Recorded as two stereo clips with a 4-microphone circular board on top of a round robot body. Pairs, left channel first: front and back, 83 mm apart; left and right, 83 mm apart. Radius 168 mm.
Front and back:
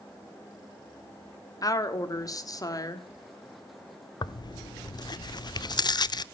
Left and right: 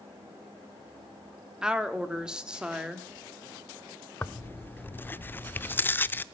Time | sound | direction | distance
1.6 | a woman speaking | 15° right | 1.8 m
4.2 | tearing paper | 25° left | 0.6 m